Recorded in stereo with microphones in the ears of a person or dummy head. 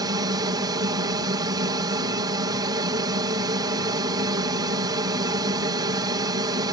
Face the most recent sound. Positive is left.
turn(degrees=-20)  # may be behind; listen again after turning